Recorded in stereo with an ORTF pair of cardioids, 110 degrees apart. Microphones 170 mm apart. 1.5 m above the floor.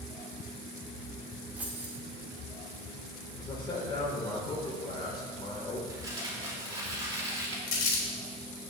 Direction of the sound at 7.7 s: 55° left.